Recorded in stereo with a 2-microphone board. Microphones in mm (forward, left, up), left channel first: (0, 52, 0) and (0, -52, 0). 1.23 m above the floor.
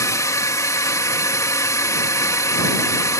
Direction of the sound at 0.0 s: 30° left (ahead or behind).